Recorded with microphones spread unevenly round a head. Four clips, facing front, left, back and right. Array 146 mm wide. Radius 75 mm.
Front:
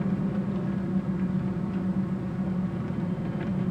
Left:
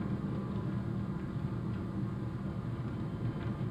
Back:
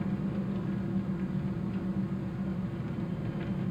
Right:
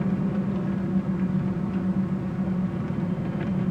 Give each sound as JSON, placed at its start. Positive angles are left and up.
{"t": 0.0, "sound": "an engine running", "azimuth_deg": -65, "distance_m": 1.3}